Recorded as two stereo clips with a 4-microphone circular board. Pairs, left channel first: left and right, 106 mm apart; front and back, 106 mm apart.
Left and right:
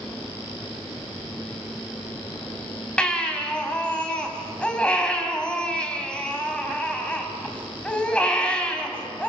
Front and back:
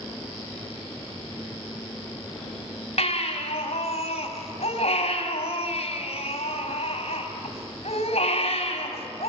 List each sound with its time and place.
3.0 s a baby crying: 10° left, 3 m